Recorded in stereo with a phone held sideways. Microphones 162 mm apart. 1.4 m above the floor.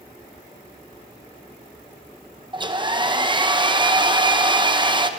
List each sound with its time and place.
2.5 s a hair dryer: 30° right (ahead or behind), 0.9 m